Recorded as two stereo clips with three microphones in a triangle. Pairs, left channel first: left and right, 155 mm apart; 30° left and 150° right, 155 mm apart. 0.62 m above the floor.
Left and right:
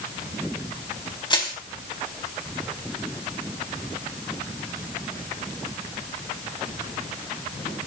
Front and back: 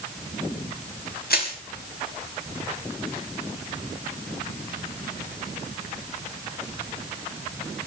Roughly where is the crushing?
Ahead left.